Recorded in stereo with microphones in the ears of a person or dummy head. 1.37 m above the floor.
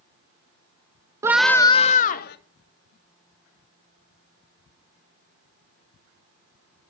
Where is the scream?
20° right (ahead or behind), 0.6 m; by 2.4 s 50° left (ahead or behind), 1.2 m.